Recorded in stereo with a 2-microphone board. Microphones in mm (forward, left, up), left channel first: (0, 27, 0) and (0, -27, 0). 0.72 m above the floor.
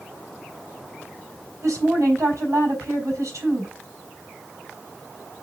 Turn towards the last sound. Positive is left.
turn(degrees=-75)  # may be behind; listen again after turning